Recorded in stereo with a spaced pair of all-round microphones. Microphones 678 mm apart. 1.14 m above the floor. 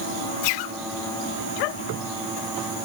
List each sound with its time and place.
Only background noise.